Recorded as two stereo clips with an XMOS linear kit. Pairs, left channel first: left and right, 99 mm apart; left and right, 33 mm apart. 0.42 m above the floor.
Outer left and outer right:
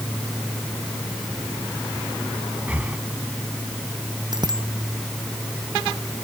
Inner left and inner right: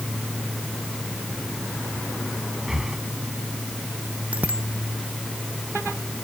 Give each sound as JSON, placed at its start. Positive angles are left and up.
{"t": 2.7, "sound": "breathing", "side_deg": -20}
{"t": 4.3, "sound": "a bicycle bell", "side_deg": -50}